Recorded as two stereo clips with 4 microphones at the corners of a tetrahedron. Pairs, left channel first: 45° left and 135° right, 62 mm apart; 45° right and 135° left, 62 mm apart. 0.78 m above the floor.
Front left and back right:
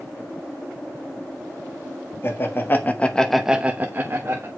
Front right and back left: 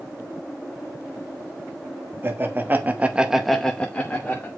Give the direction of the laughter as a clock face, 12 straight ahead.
9 o'clock.